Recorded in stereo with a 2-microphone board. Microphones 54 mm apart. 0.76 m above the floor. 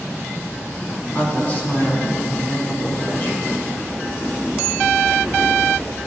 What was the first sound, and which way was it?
A woman speaking, 30° left (ahead or behind).